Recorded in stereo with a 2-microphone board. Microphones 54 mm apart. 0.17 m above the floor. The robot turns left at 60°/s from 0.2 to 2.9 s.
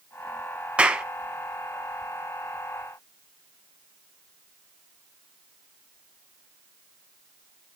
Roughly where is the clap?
Right.